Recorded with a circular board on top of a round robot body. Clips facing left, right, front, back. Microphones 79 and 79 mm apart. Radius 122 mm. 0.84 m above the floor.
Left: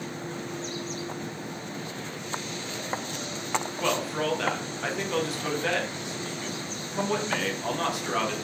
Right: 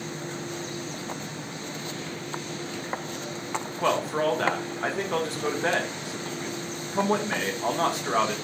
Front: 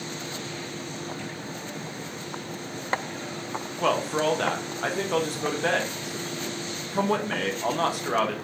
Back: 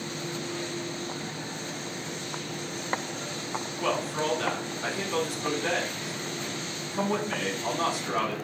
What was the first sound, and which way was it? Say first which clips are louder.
A man speaking: right 5 dB, front 5 dB; 35° right.